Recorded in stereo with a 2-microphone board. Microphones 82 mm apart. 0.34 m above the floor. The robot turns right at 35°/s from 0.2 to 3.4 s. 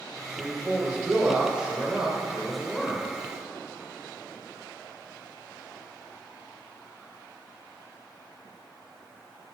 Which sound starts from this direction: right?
A man speaking, at 0.4 s.